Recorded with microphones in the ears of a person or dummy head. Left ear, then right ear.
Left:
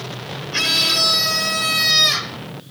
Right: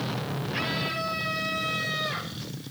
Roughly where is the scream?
Left.